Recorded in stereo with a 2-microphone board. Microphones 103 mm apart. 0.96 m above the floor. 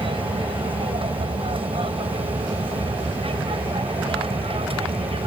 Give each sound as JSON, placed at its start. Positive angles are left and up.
{"t": 0.0, "sound": "an aircraft", "side_deg": -65}